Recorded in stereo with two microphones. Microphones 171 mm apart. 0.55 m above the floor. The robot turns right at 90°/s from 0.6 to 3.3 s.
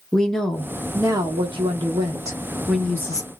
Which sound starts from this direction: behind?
A woman speaking, at 0.1 s.